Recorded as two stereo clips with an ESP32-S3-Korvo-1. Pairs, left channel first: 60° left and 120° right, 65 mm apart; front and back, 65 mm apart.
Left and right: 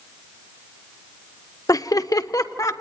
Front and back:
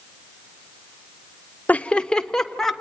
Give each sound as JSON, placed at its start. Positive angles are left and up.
{"t": 1.7, "sound": "laughter", "azimuth_deg": 65, "distance_m": 0.6}